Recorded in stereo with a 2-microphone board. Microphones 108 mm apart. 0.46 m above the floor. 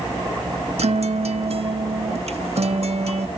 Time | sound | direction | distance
0.8 | a guitar | 75° right (ahead or behind) | 0.8 m